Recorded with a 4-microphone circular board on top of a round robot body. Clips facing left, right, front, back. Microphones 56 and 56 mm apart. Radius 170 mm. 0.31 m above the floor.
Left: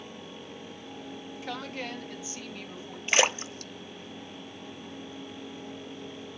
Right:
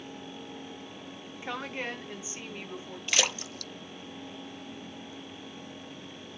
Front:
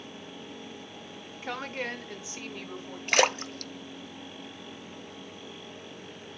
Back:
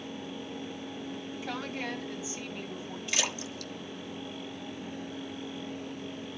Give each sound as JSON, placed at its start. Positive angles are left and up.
{"t": 1.4, "sound": "a woman speaking", "azimuth_deg": -30, "distance_m": 1.8}
{"t": 3.1, "sound": "a splash", "azimuth_deg": 30, "distance_m": 0.6}